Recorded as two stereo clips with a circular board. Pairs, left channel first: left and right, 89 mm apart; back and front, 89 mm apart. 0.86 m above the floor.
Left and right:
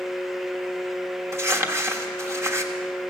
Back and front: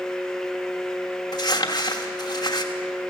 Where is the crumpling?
145° right, 1.2 m.